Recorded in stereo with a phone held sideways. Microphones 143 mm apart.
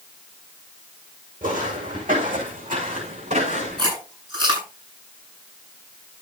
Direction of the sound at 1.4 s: 75° right (ahead or behind).